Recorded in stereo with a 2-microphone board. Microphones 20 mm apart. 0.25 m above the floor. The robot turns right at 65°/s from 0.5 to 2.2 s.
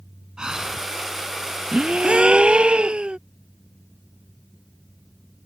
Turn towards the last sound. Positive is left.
turn(degrees=-80)